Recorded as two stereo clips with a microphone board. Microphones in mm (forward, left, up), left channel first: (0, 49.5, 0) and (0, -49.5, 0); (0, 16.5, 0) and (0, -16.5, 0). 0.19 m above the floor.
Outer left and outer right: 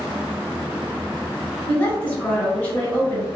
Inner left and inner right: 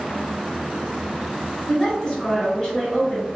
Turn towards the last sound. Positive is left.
turn(degrees=25)  # may be behind; listen again after turning